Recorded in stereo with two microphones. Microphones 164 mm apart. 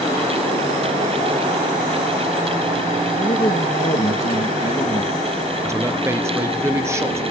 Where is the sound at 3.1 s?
50° left (ahead or behind), 2 m.